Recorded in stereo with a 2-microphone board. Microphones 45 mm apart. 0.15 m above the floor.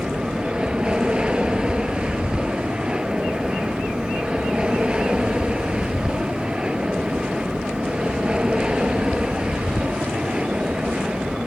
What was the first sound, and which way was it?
An aircraft, 20° right (ahead or behind).